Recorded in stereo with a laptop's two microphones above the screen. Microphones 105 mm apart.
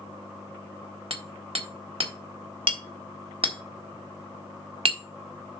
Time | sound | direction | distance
1.1 | hammering | 60° right (ahead or behind) | 1.4 m